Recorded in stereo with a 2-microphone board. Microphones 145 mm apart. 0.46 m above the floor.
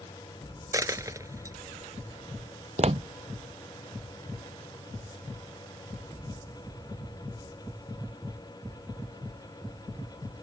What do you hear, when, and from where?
0.7 s a dropped coin: 25° right (ahead or behind)
2.8 s footsteps: 50° right (ahead or behind)